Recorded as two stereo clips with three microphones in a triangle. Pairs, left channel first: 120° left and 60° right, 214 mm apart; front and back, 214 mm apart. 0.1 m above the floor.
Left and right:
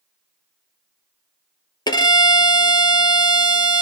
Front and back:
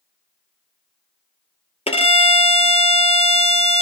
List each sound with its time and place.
1.9 s a violin: 55° left, 0.6 m